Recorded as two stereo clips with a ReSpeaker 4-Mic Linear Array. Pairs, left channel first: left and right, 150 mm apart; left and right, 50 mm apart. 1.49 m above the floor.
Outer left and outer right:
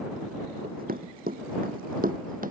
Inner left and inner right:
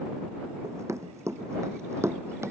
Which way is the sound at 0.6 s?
75° right (ahead or behind).